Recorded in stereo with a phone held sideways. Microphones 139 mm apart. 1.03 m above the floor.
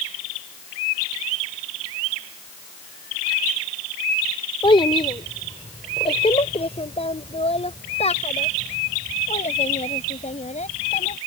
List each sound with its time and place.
4.6 s a child speaking: 40° left (ahead or behind); by 11.2 s 60° left (ahead or behind)